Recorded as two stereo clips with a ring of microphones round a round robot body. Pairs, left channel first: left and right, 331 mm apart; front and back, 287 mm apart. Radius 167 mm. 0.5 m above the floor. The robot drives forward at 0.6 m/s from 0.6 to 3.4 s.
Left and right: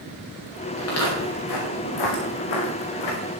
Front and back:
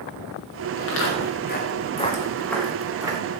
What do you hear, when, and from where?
0.8 s footsteps: 40° left, 4 m; by 3.2 s 105° left, 4 m